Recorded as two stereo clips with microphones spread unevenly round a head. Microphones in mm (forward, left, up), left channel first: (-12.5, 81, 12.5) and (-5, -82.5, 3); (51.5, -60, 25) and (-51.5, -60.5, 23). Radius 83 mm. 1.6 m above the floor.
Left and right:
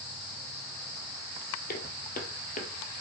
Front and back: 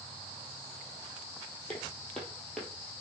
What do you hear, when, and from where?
1.7 s footsteps: 80° left, 2.5 m; by 2.7 s 85° left, 2 m